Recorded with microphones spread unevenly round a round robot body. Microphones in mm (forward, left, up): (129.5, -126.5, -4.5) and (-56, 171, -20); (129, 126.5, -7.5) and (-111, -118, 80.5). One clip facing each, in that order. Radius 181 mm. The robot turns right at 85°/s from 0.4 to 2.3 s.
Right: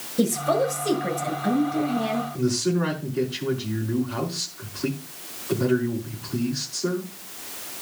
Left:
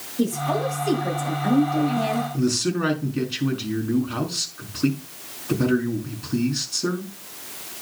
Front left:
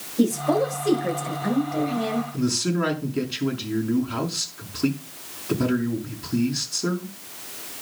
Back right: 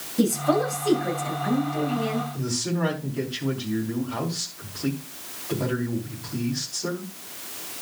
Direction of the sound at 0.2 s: 80° right.